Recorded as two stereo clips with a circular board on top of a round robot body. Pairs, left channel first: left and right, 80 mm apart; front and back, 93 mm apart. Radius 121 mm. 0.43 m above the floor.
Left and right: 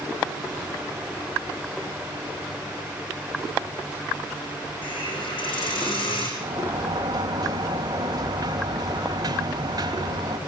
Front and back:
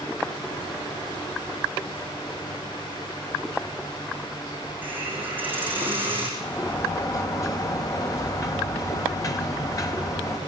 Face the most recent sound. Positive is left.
turn(degrees=-55)